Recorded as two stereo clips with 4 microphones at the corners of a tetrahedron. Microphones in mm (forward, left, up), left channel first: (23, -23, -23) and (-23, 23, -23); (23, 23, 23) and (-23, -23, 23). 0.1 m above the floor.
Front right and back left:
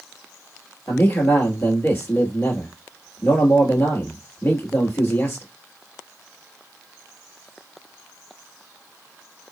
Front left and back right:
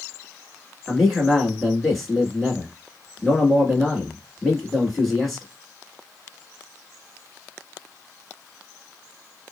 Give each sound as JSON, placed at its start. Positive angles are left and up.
{"t": 0.9, "sound": "a man speaking", "azimuth_deg": -40, "distance_m": 1.5}